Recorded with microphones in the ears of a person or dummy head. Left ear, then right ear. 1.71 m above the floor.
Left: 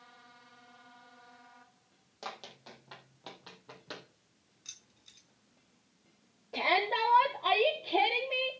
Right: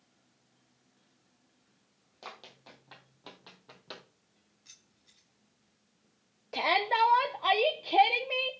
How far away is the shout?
About 1.2 m.